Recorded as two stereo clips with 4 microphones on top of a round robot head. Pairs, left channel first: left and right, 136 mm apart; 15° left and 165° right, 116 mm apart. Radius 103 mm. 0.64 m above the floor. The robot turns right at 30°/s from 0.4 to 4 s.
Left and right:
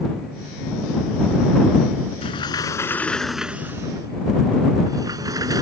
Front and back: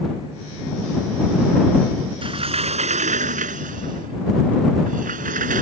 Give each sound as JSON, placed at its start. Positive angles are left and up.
{"t": 2.2, "sound": "a sliding door", "azimuth_deg": 145}